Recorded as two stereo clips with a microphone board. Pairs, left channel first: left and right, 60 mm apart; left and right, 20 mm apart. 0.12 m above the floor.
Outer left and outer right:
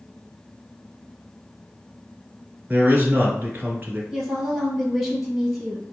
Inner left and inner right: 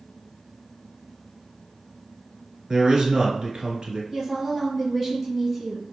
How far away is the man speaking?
About 1.4 m.